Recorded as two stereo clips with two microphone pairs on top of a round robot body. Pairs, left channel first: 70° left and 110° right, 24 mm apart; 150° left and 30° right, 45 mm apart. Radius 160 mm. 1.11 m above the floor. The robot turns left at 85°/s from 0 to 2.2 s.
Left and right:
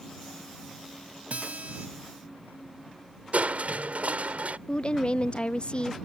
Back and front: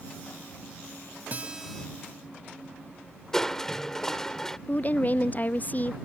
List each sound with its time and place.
1.3 s a guitar: 90° right; by 1.9 s 135° right
3.3 s crushing: 135° right
4.7 s a woman speaking: 105° left